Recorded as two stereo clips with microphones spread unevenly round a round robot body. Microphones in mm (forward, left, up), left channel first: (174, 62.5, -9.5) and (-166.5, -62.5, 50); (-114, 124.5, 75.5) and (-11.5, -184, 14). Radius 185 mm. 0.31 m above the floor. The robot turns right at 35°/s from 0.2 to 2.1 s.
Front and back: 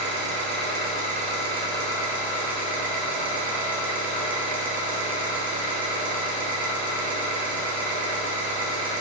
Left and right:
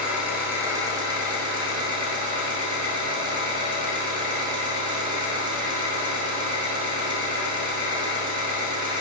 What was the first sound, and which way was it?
An engine running, 130° right.